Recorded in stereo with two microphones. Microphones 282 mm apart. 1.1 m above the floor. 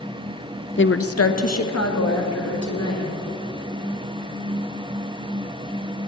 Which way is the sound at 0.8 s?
40° left (ahead or behind).